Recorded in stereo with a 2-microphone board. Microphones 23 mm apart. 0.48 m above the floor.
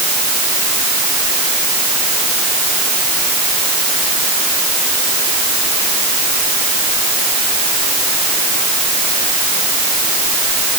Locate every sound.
Only background noise.